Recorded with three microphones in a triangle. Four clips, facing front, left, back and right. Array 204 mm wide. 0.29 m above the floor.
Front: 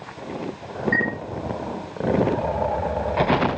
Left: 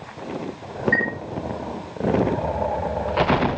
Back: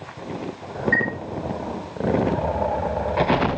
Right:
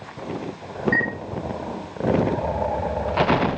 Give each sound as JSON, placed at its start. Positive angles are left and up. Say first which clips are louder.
{"t": 0.9, "sound": "a chime", "louder": "left 1 dB, even", "azimuth_deg": -140, "distance_m": 2.5}